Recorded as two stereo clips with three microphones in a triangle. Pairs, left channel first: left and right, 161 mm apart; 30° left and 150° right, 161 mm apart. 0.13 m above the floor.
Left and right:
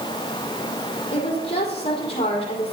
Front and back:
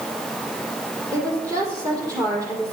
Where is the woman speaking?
140° left, 5 m.